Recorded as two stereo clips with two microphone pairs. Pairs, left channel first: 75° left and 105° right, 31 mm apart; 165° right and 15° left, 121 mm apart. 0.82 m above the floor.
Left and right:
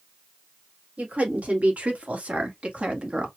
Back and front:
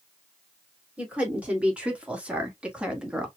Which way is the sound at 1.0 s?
65° right.